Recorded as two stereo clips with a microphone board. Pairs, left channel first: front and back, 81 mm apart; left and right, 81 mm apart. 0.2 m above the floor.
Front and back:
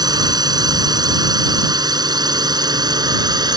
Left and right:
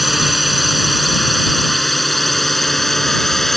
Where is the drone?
175° right; by 3.6 s straight behind.